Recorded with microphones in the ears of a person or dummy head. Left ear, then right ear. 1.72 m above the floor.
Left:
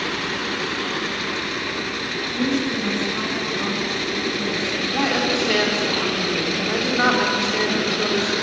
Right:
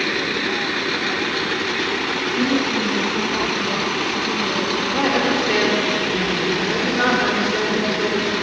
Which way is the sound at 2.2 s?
20° left (ahead or behind).